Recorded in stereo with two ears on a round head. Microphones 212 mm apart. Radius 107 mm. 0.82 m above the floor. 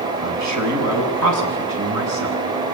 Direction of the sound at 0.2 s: 80° right.